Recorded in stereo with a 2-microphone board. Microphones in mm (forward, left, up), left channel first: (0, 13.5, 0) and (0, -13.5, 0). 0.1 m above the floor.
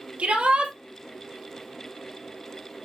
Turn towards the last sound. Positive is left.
turn(degrees=-55)  # may be behind; listen again after turning